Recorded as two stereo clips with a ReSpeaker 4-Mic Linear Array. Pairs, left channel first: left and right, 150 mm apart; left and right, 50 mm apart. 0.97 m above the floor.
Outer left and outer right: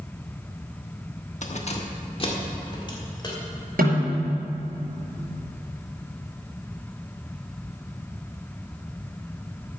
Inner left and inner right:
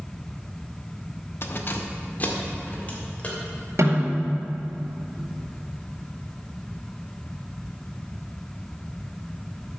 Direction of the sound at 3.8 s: 75° right (ahead or behind).